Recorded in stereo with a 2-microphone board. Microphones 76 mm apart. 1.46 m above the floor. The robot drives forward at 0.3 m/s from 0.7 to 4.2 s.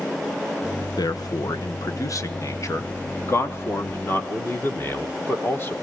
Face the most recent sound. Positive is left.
turn(degrees=30)  # may be behind; listen again after turning